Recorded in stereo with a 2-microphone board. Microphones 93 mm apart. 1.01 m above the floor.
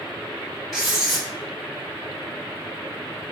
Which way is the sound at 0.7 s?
5° right (ahead or behind).